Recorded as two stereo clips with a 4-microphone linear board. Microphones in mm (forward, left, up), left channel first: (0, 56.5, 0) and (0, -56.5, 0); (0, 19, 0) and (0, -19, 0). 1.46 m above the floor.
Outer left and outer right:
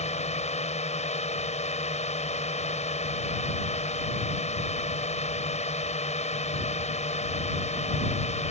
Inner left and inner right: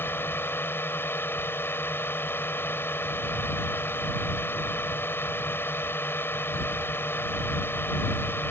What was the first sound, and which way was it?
A drone, 75° left (ahead or behind).